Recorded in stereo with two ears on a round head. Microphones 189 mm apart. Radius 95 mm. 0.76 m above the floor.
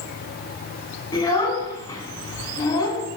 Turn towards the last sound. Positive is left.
turn(degrees=20)  # may be behind; listen again after turning